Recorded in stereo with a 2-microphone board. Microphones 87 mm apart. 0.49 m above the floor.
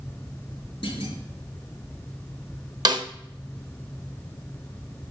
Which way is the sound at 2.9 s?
55° right (ahead or behind).